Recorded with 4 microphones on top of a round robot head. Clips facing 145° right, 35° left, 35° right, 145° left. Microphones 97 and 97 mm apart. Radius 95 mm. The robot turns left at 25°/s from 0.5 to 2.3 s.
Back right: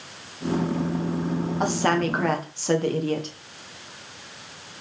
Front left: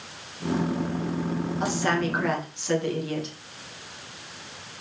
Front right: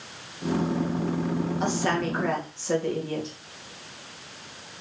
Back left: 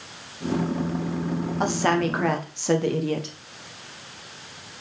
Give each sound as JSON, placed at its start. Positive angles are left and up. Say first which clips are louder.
{"t": 1.6, "sound": "a woman speaking", "louder": "back right 3 dB, back left 6 dB", "azimuth_deg": -175, "distance_m": 1.3}